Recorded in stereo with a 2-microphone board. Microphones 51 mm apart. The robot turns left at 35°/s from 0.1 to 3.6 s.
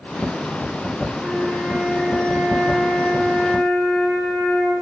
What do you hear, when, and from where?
1.2 s a flute: 150° right, 9 m; by 4.7 s 125° left, 9 m